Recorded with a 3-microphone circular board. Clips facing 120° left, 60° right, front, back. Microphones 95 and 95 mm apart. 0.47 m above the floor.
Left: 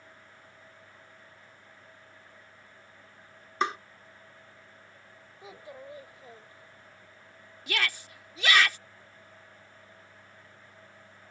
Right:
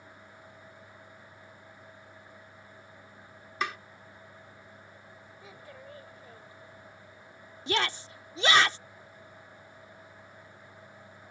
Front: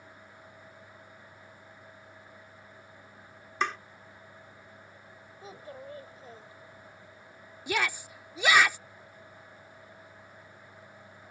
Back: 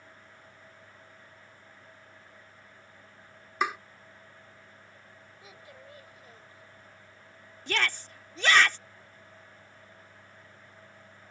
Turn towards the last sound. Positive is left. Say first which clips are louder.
# right 3 dB, front 1 dB
turn(degrees=-70)